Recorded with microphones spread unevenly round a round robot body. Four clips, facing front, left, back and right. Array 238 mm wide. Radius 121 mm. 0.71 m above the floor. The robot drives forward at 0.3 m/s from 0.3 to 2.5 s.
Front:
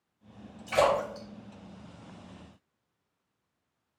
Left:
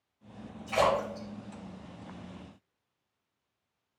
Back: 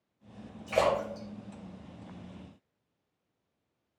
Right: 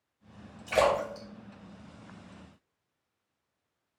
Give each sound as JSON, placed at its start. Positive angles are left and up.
{"t": 0.7, "sound": "a splash", "azimuth_deg": -140, "distance_m": 3.5}